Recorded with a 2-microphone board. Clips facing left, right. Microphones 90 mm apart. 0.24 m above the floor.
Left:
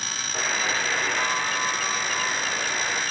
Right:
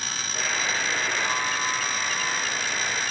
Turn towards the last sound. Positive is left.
turn(degrees=55)  # may be behind; listen again after turning